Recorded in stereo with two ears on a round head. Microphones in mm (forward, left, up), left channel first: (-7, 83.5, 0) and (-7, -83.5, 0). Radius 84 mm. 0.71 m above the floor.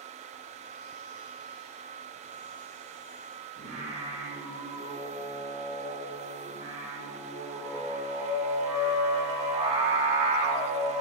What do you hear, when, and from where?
3.6 s singing: 35° right (ahead or behind), 1.7 m